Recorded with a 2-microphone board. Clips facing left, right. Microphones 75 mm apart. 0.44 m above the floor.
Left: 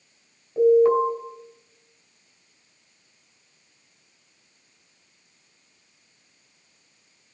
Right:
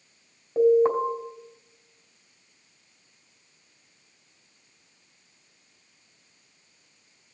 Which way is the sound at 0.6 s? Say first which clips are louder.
Left 3 dB; 35° right (ahead or behind).